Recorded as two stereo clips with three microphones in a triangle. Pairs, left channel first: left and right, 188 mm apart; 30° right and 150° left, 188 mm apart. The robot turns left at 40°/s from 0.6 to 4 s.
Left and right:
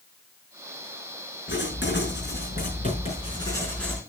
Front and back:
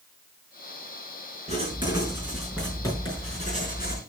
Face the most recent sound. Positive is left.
turn(degrees=0)